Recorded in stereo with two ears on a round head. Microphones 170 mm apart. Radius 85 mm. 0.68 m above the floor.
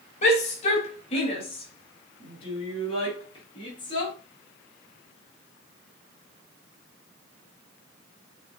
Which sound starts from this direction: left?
A shout, at 0.2 s.